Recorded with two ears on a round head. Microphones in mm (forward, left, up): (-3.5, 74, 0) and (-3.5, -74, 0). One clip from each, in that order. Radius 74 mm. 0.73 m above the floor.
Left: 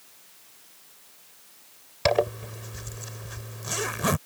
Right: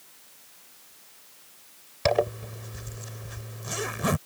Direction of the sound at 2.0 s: 15° left (ahead or behind).